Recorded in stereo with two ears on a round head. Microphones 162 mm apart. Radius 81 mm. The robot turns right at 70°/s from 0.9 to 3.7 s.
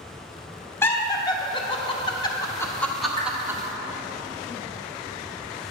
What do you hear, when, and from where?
0.8 s laughter: 10° left (ahead or behind), 0.7 m; by 3.6 s 15° right (ahead or behind), 0.7 m
3.2 s a whoosh: 25° left (ahead or behind), 1.3 m; by 3.3 s 15° left (ahead or behind), 1.3 m